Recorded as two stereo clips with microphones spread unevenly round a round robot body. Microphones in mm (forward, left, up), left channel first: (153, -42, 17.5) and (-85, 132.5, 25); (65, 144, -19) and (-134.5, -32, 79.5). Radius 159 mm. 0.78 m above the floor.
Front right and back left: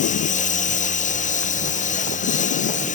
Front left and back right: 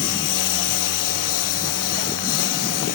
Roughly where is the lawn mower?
Ahead left.